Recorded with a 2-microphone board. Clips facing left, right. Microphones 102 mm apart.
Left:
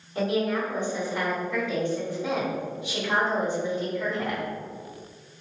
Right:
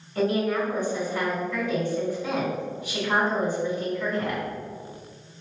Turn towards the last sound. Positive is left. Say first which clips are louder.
# right 2 dB
turn(degrees=20)  # may be behind; listen again after turning